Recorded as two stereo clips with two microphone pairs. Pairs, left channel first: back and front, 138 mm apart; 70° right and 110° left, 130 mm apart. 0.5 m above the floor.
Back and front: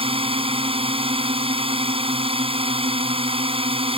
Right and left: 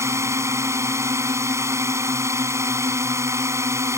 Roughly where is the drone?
Ahead left.